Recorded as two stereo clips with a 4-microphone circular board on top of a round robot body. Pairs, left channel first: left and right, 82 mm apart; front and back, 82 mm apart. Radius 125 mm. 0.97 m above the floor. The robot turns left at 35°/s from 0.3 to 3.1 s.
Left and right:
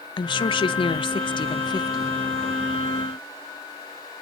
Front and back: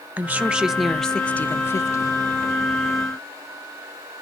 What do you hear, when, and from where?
0.2 s a woman speaking: 110° left, 0.6 m; by 2.1 s 45° left, 0.6 m